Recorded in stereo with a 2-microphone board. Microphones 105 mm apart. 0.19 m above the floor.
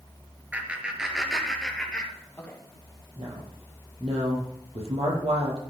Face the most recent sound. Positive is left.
turn(degrees=-75)  # may be behind; listen again after turning